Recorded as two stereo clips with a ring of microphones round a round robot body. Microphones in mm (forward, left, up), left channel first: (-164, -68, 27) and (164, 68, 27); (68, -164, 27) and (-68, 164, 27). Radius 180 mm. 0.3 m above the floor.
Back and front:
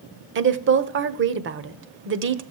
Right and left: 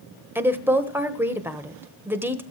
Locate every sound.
0.3 s a woman speaking: 35° left, 1.3 m